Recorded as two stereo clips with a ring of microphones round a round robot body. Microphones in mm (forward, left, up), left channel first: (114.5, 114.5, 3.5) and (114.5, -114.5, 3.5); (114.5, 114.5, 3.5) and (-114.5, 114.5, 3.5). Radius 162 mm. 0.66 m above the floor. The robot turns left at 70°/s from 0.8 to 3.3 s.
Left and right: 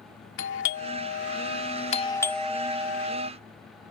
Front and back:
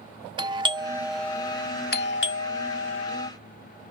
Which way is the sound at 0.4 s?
115° left.